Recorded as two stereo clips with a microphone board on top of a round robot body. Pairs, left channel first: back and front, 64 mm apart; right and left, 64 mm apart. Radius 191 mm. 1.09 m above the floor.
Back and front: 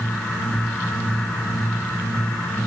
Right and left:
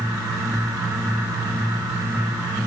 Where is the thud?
No thud in this recording.